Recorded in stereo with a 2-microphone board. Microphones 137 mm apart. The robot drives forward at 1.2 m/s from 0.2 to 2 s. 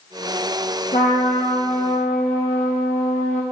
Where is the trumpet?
60° left (ahead or behind), 4.5 m; by 3.4 s 50° left (ahead or behind), 5 m.